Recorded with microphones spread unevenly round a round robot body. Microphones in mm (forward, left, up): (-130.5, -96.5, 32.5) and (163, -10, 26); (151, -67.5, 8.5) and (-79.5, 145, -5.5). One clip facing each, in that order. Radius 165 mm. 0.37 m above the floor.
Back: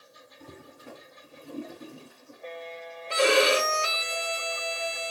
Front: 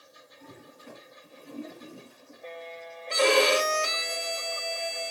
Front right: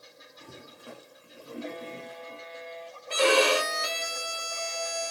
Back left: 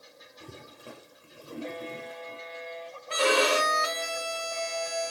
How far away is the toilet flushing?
About 2 m.